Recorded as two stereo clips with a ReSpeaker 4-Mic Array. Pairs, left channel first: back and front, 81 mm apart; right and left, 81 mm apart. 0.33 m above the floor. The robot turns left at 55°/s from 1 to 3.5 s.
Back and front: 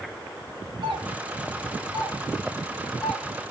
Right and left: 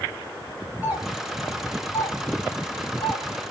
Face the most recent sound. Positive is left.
turn(degrees=-120)